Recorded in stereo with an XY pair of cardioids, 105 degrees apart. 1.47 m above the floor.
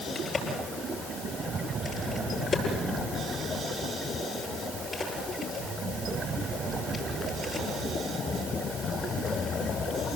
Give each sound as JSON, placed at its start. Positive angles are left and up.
{"t": 0.1, "sound": "a crack", "azimuth_deg": 35, "distance_m": 10.0}